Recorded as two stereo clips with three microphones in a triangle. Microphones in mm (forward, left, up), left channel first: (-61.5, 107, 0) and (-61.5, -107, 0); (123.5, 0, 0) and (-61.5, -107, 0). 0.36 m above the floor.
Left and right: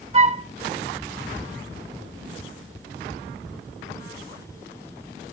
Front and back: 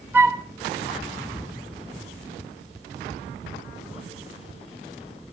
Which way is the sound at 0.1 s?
75° right.